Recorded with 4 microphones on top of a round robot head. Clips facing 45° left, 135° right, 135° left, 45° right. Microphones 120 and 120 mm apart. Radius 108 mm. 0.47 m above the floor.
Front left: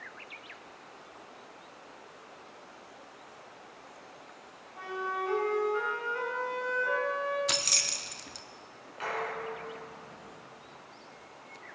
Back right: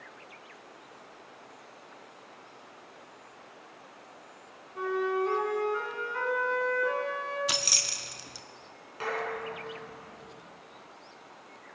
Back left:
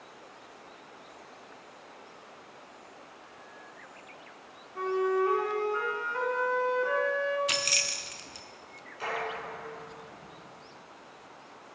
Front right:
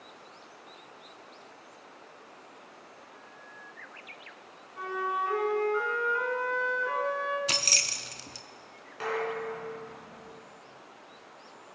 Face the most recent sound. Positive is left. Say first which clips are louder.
# back right 1 dB, front right 3 dB
turn(degrees=-80)